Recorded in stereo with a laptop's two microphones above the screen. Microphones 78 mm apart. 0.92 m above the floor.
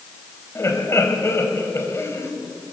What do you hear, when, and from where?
0.6 s laughter: 35° left (ahead or behind), 4.5 m